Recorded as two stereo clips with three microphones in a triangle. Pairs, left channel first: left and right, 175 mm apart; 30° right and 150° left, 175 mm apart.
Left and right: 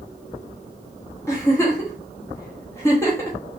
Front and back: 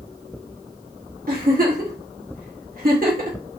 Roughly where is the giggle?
Behind.